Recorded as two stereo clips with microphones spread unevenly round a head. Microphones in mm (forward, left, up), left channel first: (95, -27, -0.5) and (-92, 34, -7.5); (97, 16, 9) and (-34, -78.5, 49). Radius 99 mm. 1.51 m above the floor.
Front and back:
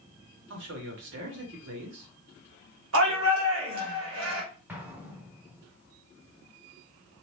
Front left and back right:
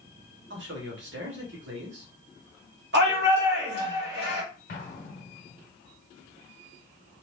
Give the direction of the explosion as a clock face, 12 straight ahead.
9 o'clock.